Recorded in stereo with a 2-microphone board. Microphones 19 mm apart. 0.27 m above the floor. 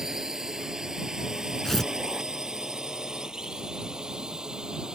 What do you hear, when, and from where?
0.0 s a drone: 30° right (ahead or behind); by 5.0 s 45° right (ahead or behind)
1.6 s tearing paper: 20° left (ahead or behind)